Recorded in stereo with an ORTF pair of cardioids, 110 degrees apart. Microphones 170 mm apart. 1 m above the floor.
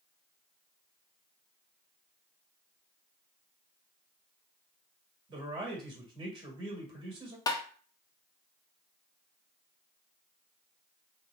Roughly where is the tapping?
Ahead.